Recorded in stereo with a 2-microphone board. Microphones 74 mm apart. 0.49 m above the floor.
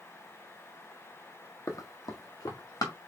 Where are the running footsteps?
50° left (ahead or behind), 1.0 m; by 2.9 s 55° left (ahead or behind), 3 m.